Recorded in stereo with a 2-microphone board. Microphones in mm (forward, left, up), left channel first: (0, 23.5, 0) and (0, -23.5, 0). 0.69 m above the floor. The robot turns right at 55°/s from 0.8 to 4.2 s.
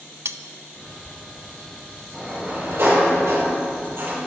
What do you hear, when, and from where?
0.2 s cutlery clinking: 55° right (ahead or behind), 0.6 m
2.1 s a sliding door: 160° right, 4 m; by 4.2 s 45° right, 4 m